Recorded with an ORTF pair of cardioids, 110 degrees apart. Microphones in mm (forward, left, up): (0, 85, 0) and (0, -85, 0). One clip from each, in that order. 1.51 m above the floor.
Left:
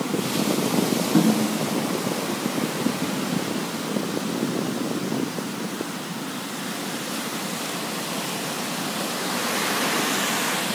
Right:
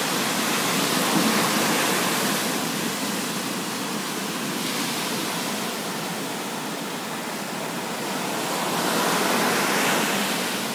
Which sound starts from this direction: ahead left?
A snare drum, at 1.1 s.